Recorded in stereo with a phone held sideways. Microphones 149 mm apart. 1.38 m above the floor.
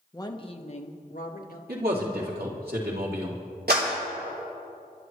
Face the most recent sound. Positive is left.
turn(degrees=-80)